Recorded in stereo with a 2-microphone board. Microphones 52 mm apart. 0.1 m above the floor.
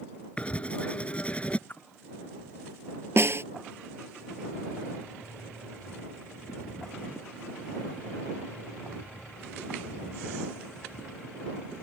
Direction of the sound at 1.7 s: 40° left (ahead or behind).